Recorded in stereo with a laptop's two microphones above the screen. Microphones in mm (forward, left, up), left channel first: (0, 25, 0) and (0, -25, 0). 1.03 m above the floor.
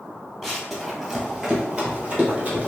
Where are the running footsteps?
5° left (ahead or behind), 1.2 m; by 2.7 s 30° right (ahead or behind), 1.3 m.